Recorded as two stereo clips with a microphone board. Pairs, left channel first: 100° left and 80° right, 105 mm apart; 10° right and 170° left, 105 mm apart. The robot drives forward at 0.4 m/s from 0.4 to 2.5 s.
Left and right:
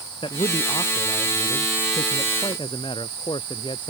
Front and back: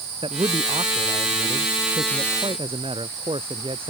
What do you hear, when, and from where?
0.2 s a man speaking: 135° left; by 3.9 s 140° left